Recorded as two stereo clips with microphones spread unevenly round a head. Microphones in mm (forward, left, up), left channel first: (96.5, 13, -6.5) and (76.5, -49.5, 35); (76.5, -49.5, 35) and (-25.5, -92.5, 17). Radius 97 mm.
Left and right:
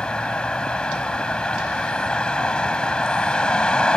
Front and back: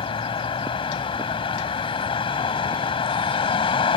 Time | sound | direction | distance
0.0 | a vehicle | 15° right | ?